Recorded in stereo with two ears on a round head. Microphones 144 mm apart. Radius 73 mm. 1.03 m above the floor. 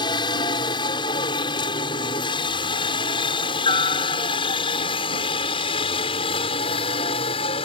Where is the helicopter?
30° left (ahead or behind); by 7.6 s 35° left (ahead or behind).